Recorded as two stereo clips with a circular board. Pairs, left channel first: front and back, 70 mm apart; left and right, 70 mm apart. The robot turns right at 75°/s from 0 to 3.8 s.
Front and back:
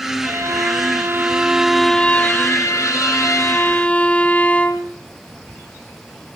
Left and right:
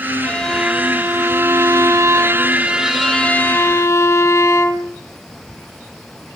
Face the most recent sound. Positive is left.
turn(degrees=65)